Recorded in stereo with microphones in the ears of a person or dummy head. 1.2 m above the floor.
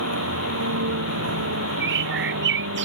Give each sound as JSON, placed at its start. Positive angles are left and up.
{"t": 0.0, "sound": "a vehicle", "side_deg": -85}
{"t": 1.8, "sound": "a bird", "side_deg": -60}